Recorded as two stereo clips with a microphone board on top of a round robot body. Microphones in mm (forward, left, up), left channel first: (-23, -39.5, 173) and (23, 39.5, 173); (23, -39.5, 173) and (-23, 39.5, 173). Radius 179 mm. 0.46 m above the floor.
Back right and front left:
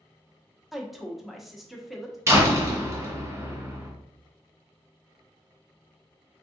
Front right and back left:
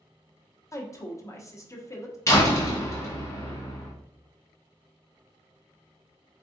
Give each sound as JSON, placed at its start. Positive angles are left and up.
{"t": 0.7, "sound": "a woman speaking", "azimuth_deg": -30, "distance_m": 1.1}
{"t": 2.3, "sound": "a door slam", "azimuth_deg": 0, "distance_m": 1.4}